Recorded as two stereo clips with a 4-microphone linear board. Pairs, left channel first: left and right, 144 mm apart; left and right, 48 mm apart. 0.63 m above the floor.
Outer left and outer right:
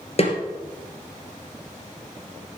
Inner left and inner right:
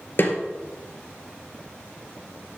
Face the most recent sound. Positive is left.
turn(degrees=45)  # may be behind; listen again after turning